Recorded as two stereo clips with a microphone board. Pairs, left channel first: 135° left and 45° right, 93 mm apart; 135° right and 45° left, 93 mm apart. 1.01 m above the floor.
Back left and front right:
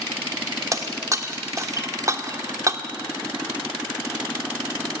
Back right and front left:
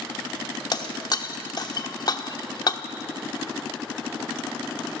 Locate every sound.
0.7 s breaking glass: 95° right, 1.0 m